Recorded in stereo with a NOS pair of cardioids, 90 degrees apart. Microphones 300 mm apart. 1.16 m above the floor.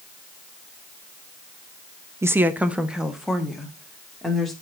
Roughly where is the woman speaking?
Ahead.